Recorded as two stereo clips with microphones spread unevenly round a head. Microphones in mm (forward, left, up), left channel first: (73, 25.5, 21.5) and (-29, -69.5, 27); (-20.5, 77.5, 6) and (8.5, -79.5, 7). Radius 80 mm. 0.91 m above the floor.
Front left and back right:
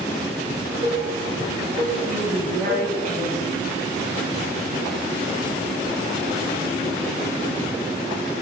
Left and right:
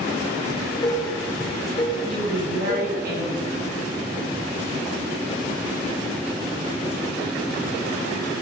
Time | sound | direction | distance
0.5 | dishes clattering | 165° left | 2.5 m
2.1 | a woman speaking | 110° right | 5.5 m